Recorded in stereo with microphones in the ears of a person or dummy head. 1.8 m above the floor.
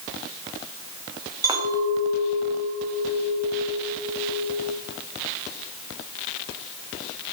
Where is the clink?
15° right (ahead or behind), 2.5 m.